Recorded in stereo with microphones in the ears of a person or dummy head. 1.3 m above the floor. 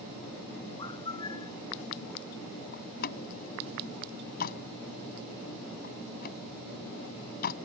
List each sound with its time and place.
0.8 s a bird: 25° left (ahead or behind)
2.7 s a door slam: 55° left (ahead or behind)